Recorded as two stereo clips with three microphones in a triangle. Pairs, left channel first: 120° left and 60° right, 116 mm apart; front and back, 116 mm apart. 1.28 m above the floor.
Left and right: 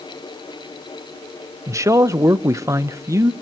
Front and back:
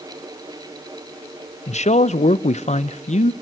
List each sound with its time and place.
1.7 s a man speaking: 5° left, 0.6 m